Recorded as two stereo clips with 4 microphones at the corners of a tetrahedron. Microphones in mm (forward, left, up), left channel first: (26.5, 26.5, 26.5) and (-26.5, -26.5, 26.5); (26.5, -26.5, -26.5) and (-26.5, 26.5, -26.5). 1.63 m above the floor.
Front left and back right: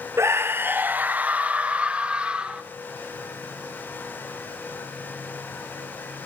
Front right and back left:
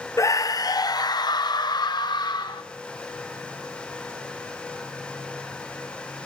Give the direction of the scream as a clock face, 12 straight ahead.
3 o'clock.